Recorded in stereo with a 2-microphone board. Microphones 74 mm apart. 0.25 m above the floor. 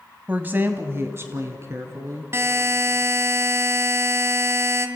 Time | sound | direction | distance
0.3 | a woman speaking | 20° right (ahead or behind) | 1.2 m
2.3 | a buzzer | 40° right (ahead or behind) | 1.9 m